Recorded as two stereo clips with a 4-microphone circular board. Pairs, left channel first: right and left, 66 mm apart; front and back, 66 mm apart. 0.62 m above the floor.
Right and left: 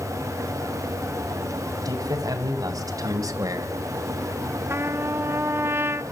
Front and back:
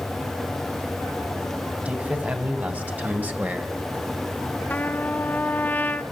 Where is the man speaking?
115° left, 4.5 m.